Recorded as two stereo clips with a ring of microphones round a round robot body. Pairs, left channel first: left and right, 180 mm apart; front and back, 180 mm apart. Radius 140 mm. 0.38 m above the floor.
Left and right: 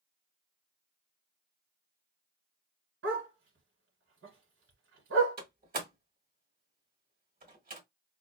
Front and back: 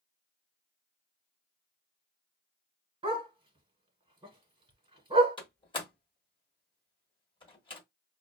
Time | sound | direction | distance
3.0 | a dog barking | 120° right | 1.3 m
5.4 | a door slam | 60° right | 1.4 m